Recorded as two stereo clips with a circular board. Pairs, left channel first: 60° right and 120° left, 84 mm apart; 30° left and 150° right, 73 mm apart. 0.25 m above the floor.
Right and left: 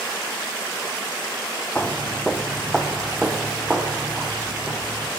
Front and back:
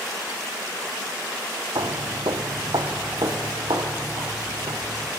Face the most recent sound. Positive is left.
turn(degrees=-160)